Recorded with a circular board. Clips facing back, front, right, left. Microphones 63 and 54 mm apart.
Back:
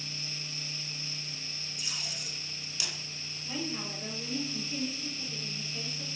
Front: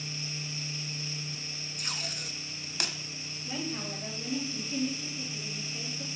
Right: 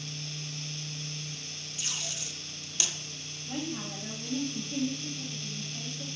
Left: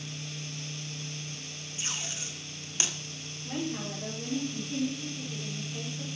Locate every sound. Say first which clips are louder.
1.8 s tape being pulled: front 3 dB, left 1 dB; 35° left, 1.3 m
3.5 s a woman speaking: front 1 dB, left 2 dB; 90° left, 6.5 m